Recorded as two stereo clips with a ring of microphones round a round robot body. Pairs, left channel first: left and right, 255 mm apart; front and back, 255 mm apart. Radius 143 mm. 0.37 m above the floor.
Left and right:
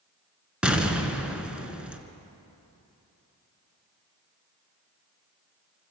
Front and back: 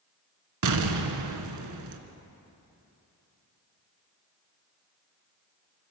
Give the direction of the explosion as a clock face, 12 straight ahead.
6 o'clock.